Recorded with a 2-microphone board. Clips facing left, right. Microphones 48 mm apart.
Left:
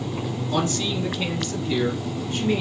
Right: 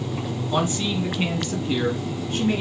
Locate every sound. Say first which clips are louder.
0.5 s a man speaking: right 1 dB; 15° right (ahead or behind), 1.0 m; by 2.6 s 35° right (ahead or behind), 1.7 m